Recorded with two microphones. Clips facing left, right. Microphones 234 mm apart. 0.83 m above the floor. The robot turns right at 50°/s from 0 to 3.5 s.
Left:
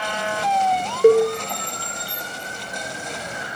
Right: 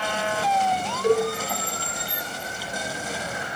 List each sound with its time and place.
1.0 s a cowbell: 60° left (ahead or behind), 0.5 m; by 1.3 s 70° left (ahead or behind), 0.5 m